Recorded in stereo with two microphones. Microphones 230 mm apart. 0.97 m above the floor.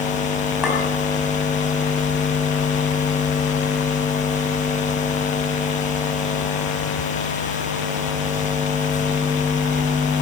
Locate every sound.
0.6 s a clink: 5° right (ahead or behind), 5 m